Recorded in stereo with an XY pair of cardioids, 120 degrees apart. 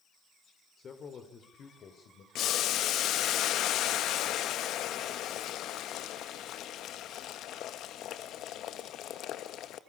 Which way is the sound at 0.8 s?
45° left.